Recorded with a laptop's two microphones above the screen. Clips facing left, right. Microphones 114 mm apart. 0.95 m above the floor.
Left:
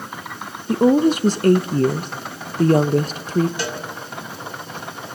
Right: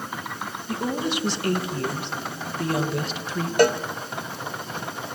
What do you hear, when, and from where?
0.7 s a woman speaking: 45° left (ahead or behind), 0.7 m
3.6 s a cowbell: 55° right (ahead or behind), 0.8 m